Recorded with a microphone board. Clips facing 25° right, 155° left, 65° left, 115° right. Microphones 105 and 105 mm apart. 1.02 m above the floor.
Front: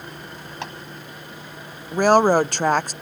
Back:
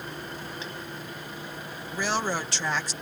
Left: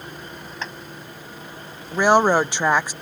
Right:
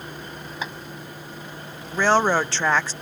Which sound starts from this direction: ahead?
A woman speaking, at 1.9 s.